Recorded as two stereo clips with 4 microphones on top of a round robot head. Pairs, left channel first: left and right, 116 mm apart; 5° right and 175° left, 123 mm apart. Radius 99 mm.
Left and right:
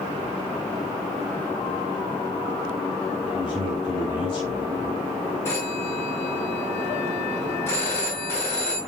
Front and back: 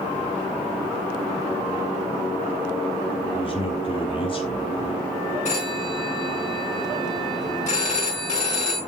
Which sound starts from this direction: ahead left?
A man speaking, at 3.3 s.